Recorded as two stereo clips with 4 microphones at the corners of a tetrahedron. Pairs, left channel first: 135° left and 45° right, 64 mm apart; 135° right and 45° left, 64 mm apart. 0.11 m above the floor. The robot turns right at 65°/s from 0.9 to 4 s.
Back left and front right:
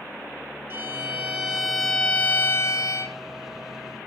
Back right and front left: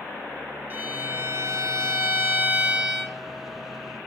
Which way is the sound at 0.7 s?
10° right.